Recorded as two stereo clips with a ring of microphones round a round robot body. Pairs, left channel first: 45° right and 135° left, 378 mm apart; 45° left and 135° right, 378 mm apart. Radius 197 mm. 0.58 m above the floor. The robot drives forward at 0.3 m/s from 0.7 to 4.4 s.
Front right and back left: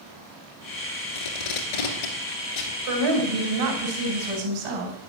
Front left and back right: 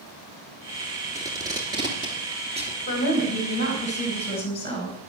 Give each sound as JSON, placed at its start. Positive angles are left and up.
{"t": 1.1, "sound": "tape being pulled", "azimuth_deg": -50, "distance_m": 3.0}
{"t": 2.9, "sound": "a woman speaking", "azimuth_deg": 115, "distance_m": 3.5}